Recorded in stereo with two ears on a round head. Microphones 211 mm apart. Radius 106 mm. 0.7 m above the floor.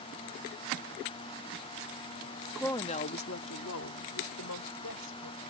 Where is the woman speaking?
Centre (ahead or behind); by 5.4 s 80° left.